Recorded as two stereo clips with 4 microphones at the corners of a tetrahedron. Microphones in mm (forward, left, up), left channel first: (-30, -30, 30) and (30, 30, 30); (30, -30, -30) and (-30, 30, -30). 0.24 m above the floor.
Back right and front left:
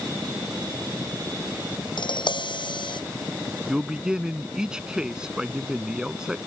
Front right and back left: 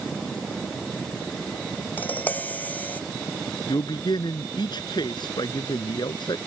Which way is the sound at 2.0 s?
115° right.